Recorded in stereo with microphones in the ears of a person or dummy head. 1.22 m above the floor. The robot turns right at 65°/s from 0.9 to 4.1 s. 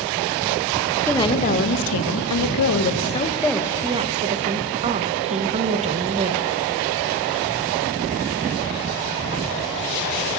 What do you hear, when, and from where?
1.1 s a woman speaking: 15° left, 0.8 m; by 6.5 s 150° right, 0.8 m